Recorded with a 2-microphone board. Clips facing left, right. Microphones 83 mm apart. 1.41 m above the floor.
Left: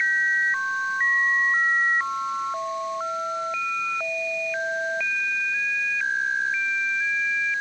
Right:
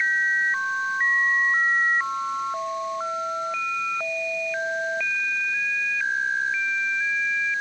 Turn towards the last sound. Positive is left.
No sound to turn to.